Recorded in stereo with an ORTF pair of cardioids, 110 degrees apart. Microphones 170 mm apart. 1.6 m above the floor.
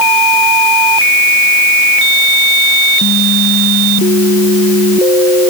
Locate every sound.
Only background noise.